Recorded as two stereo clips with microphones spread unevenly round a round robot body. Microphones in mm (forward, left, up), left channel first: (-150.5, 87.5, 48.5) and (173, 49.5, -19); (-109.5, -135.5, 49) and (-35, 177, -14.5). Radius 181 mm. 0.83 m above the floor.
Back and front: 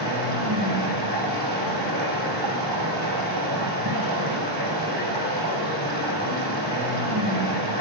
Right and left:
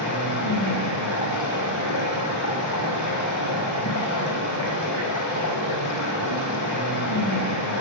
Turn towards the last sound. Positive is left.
turn(degrees=-55)